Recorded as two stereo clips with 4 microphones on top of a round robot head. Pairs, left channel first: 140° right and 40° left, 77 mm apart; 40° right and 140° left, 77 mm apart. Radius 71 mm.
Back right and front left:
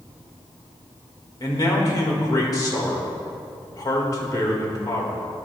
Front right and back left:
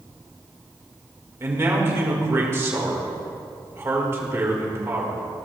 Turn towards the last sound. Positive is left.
turn(degrees=-170)